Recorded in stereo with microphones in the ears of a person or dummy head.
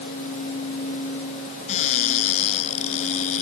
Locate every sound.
1.7 s a cupboard door: 45° left (ahead or behind)